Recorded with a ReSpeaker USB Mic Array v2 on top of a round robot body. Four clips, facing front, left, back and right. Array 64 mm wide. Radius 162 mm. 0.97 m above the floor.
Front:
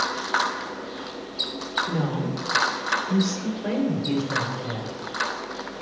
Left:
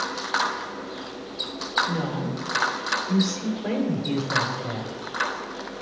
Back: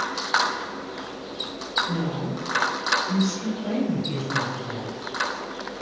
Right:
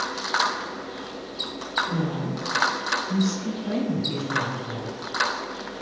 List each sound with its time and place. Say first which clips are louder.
1.9 s a woman speaking: even, front 1 dB; 25° left, 3 m; by 5.0 s 55° left, 4.5 m